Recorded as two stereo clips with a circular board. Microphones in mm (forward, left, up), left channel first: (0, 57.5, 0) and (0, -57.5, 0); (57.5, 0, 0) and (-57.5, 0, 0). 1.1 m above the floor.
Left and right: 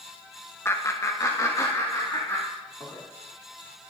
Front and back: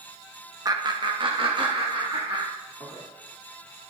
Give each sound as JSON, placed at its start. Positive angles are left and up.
{"t": 0.7, "sound": "laughter", "azimuth_deg": 145, "distance_m": 0.9}